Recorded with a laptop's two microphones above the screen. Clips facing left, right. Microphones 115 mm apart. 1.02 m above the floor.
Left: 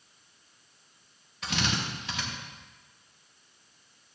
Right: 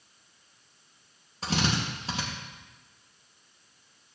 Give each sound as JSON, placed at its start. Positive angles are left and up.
{"t": 1.4, "sound": "a drill", "side_deg": -35, "distance_m": 1.8}